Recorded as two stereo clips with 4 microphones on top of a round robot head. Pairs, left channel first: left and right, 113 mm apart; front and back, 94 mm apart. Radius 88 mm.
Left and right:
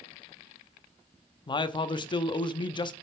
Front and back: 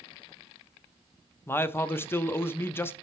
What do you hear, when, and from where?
1.5 s a man speaking: 60° left, 0.7 m